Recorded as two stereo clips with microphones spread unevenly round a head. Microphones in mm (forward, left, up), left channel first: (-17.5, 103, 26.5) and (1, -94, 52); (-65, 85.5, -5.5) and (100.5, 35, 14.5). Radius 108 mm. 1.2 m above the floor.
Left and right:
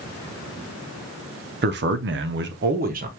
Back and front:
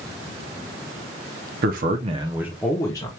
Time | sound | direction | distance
1.6 | a man speaking | 50° right | 0.7 m